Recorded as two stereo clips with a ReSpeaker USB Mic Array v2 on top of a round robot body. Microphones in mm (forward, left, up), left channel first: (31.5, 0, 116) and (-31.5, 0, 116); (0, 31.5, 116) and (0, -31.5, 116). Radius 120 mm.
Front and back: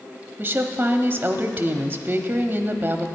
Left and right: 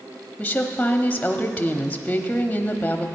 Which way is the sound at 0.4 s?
145° left.